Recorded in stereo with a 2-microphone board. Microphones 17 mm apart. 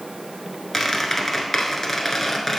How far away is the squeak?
About 1.1 m.